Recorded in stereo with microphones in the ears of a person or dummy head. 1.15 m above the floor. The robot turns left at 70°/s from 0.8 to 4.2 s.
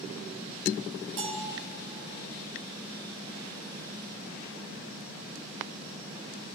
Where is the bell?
75° right (ahead or behind), 3.5 m; by 1.6 s 60° right (ahead or behind), 3.5 m.